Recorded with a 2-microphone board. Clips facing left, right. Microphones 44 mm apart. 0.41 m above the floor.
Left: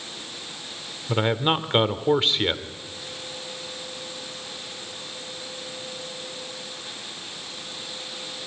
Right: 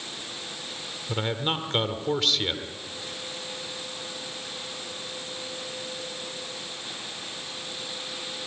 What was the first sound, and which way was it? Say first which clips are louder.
A man speaking: left 6 dB; 25° left (ahead or behind).